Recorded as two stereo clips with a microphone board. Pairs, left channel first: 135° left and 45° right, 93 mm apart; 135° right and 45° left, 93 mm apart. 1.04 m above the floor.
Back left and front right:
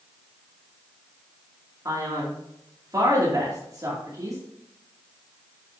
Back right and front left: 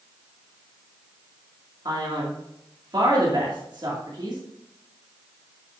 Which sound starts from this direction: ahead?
A man speaking, at 1.9 s.